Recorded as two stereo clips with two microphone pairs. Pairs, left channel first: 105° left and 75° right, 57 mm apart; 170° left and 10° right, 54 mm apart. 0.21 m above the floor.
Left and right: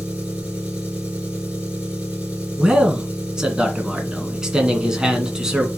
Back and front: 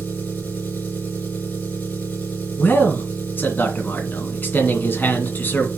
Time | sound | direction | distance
0.0 | an engine running | 145° right | 3 m
2.6 | a man speaking | 155° right | 2 m